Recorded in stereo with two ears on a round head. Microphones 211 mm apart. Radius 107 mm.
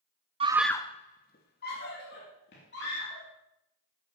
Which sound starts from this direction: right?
A scream, at 0.4 s.